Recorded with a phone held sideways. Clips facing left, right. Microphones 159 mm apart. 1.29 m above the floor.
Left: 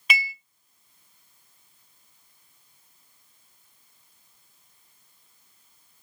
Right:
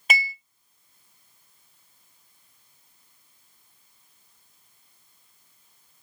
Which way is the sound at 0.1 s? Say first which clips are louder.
Right 2 dB; 45° right (ahead or behind).